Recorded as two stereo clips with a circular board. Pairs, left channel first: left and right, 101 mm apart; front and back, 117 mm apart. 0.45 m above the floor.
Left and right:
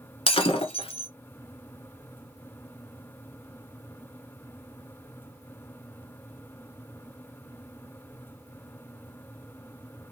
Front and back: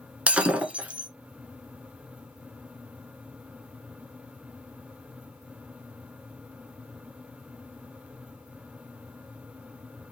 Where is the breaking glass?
100° left, 0.9 m.